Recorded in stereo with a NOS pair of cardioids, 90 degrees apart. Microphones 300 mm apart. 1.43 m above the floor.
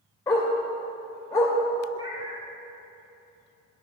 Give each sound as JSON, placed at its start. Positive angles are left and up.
{"t": 0.3, "sound": "a dog barking", "azimuth_deg": 10, "distance_m": 2.5}
{"t": 1.9, "sound": "a cat meowing", "azimuth_deg": -15, "distance_m": 2.0}